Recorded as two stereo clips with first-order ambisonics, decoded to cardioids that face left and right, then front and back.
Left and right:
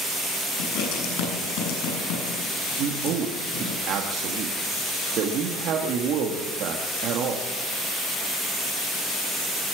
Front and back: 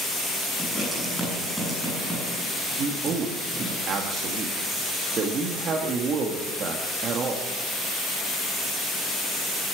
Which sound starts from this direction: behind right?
A man speaking, at 2.8 s.